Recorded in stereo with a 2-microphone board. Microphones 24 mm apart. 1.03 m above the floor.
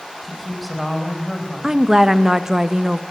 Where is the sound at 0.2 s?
Centre (ahead or behind), 5 m.